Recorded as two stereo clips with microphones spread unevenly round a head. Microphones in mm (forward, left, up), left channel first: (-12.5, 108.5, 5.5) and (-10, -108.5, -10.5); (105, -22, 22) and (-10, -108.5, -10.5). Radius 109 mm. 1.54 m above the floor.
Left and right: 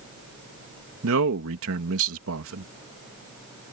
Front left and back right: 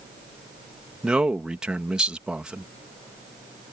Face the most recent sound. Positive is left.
turn(degrees=-60)